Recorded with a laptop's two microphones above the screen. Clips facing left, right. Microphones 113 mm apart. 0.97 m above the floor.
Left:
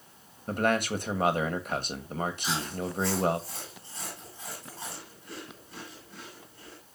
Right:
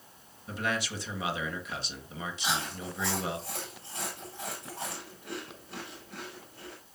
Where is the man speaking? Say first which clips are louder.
Left 7 dB; 50° left (ahead or behind), 1.1 m.